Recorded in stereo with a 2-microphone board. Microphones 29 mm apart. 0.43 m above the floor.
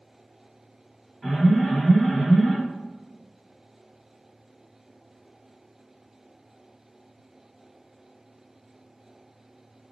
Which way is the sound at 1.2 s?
10° right (ahead or behind).